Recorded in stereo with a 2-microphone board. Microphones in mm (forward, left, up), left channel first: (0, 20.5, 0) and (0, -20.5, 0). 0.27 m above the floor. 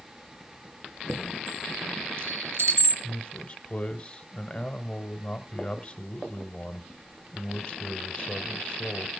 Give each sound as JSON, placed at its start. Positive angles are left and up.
{"t": 1.1, "sound": "a chime", "side_deg": -75, "distance_m": 4.0}
{"t": 3.0, "sound": "a man speaking", "side_deg": 25, "distance_m": 1.0}